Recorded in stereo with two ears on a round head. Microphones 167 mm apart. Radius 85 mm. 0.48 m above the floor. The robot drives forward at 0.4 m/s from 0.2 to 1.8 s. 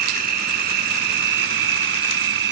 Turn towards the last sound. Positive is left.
turn(degrees=-65)  # may be behind; listen again after turning